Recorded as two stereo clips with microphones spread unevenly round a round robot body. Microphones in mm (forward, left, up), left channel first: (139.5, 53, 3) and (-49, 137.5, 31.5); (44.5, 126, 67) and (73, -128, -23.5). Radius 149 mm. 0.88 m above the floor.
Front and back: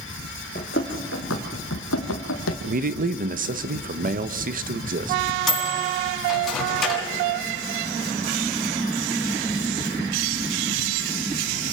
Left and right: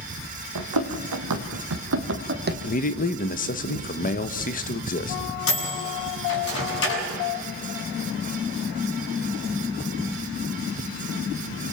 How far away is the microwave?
About 7 m.